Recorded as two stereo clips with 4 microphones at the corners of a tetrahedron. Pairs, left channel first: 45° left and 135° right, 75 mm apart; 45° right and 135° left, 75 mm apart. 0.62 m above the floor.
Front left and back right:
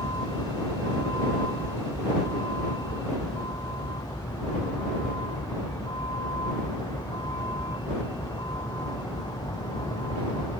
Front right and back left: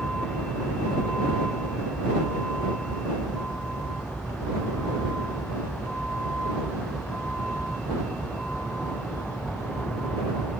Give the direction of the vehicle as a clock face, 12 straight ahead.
11 o'clock.